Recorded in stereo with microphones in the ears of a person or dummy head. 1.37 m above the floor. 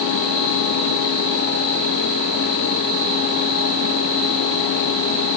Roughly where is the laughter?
I don't hear laughter.